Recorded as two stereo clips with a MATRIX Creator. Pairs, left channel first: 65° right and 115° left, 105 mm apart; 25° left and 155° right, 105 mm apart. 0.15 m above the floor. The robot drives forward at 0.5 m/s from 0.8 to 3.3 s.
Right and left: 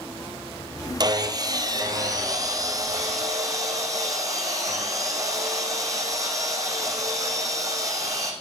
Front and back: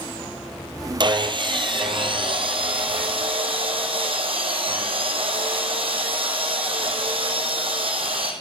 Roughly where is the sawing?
Behind.